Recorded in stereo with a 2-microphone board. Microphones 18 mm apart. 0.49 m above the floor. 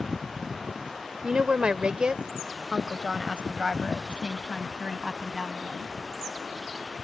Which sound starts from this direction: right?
A woman speaking, at 1.2 s.